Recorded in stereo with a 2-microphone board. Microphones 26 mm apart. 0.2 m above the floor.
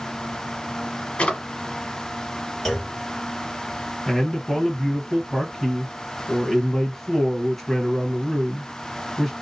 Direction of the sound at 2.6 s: 10° left (ahead or behind).